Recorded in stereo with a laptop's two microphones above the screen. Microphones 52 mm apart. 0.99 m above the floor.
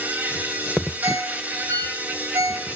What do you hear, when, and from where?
0.0 s an insect: 35° right (ahead or behind), 3 m
1.0 s a ringtone: 75° right (ahead or behind), 5 m